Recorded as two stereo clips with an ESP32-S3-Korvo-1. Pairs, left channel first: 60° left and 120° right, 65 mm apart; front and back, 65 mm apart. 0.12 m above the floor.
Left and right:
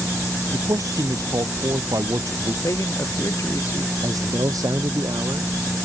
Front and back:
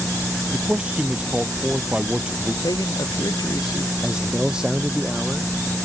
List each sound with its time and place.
0.5 s a man speaking: 110° right
2.6 s a man speaking: 20° left
4.0 s a man speaking: 105° right